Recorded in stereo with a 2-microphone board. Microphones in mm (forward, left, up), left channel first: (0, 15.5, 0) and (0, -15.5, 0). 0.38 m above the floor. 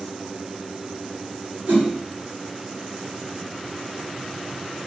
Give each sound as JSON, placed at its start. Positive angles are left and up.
{"t": 1.7, "sound": "a whoosh", "side_deg": -55, "distance_m": 2.5}